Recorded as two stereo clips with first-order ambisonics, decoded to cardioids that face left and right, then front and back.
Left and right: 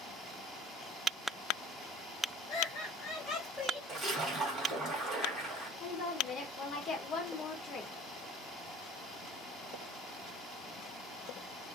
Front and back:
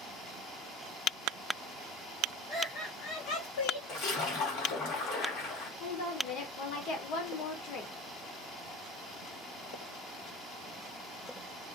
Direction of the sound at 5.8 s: 35° left.